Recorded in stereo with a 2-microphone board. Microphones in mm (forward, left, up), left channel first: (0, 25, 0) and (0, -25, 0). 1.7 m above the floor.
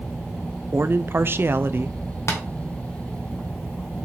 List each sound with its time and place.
0.7 s a man speaking: 50° right (ahead or behind), 0.5 m
2.3 s tapping: 65° left (ahead or behind), 1.8 m